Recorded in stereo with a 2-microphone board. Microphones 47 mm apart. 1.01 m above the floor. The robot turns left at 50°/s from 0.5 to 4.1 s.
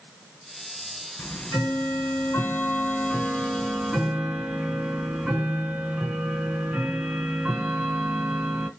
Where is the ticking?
120° left, 2.5 m; by 8.7 s 25° right, 2.5 m.